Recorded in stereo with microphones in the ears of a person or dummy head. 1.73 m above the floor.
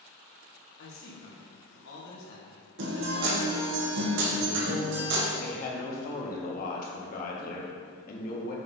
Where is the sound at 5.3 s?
50° left (ahead or behind), 1.6 m.